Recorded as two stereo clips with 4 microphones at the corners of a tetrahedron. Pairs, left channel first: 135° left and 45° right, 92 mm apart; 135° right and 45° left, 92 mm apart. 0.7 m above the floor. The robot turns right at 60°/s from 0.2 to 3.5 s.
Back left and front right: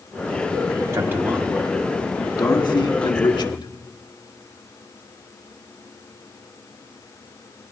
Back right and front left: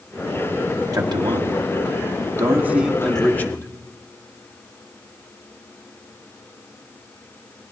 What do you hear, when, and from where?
0.9 s a man speaking: 10° left, 1.5 m; by 3.7 s 160° left, 1.5 m